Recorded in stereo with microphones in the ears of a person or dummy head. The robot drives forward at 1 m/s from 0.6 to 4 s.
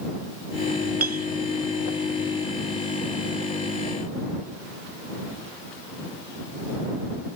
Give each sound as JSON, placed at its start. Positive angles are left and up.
{"t": 1.0, "sound": "a clink", "side_deg": -50}